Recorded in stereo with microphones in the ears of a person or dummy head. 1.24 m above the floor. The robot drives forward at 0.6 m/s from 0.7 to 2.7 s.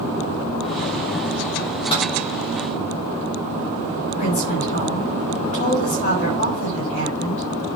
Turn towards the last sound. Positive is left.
turn(degrees=45)  # may be behind; listen again after turning